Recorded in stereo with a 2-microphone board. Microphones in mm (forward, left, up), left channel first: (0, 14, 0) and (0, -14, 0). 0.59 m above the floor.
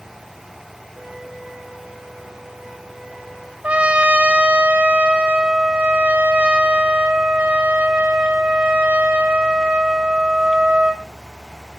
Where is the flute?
50° right (ahead or behind), 6 m.